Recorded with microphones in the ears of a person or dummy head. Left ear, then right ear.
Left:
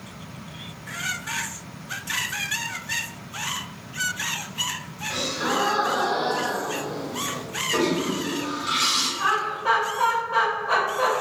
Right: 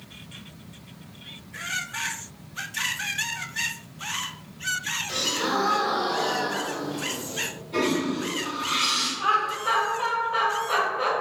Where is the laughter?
20° left (ahead or behind), 1.7 m.